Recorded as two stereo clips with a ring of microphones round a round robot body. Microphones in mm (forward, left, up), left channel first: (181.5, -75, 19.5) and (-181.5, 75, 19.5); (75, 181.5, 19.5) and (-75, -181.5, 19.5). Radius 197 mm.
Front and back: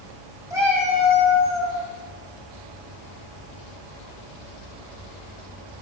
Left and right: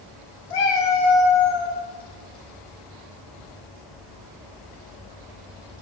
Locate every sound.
0.5 s a cat meowing: 75° left, 2 m; by 1.8 s 55° left, 2 m